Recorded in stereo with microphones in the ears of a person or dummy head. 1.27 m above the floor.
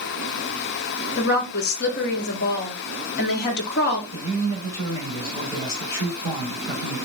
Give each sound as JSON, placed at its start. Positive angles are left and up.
{"t": 1.2, "sound": "a woman speaking", "side_deg": 50, "distance_m": 0.7}
{"t": 4.1, "sound": "a man speaking", "side_deg": 55, "distance_m": 2.5}